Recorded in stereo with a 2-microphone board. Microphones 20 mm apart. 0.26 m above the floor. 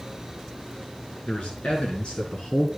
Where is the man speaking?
70° left (ahead or behind), 4 m; by 2.7 s 50° left (ahead or behind), 3 m.